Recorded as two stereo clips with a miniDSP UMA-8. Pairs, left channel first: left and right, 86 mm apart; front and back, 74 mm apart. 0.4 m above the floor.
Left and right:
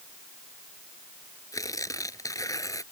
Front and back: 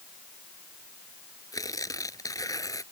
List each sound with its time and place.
1.5 s tearing paper: 40° left